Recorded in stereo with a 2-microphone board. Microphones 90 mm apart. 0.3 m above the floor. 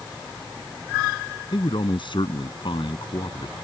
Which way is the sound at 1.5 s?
65° left (ahead or behind).